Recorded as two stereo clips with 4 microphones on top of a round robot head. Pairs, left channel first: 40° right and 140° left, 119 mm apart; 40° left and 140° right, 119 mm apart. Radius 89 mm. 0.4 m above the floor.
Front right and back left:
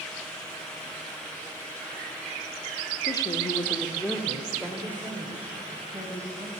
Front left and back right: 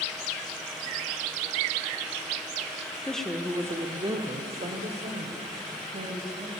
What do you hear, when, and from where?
3.0 s a woman speaking: 35° right, 0.9 m; by 6.5 s 150° right, 2.5 m